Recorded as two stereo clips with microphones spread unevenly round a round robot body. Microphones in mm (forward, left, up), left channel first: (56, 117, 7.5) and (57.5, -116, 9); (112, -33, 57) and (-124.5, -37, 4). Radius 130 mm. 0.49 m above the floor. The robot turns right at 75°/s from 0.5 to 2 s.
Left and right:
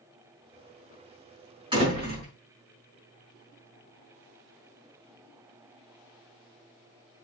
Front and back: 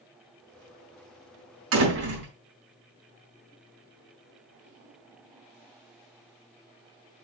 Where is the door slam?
165° right, 4 m; by 2.3 s 140° right, 4 m.